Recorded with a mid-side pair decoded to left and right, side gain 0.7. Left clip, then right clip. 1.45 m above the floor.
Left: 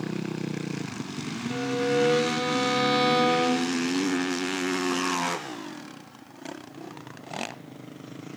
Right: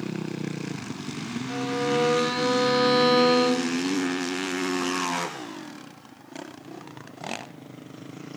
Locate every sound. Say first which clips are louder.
1.5 s a violin: even; 70° right, 3 m